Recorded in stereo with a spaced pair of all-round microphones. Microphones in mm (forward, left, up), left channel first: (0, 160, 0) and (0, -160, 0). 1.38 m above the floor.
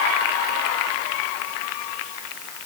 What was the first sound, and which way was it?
Only background noise.